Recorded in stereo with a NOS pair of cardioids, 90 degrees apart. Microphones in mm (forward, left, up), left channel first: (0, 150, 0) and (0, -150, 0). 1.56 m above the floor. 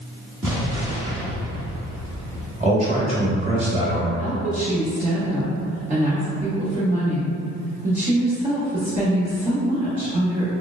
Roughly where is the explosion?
Ahead.